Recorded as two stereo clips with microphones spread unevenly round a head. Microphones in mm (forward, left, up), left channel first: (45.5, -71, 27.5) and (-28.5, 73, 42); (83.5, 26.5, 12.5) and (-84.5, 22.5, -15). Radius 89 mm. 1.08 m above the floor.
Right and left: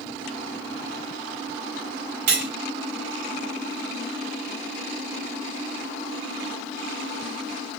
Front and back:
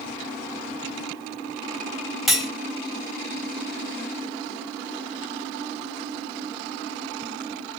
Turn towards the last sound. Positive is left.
turn(degrees=90)